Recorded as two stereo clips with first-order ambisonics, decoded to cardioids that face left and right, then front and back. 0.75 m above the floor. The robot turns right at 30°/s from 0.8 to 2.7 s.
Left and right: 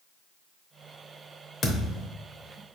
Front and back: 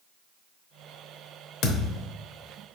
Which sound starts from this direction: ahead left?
A thud, at 1.6 s.